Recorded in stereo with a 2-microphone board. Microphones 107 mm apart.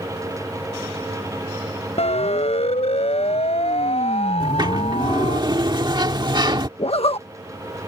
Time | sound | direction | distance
2.0 | a siren | 80° left | ?
4.4 | a sliding door | 45° right (ahead or behind) | ?
6.8 | a zipper | 65° left (ahead or behind) | ?